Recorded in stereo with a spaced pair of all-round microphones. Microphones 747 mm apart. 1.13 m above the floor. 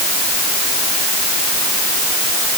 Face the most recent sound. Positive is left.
No sound to turn to.